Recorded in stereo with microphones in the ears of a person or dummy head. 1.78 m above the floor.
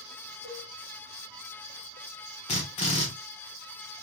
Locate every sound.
0.4 s a cowbell: 40° left (ahead or behind), 3.5 m
2.5 s a drill: 30° left (ahead or behind), 1.2 m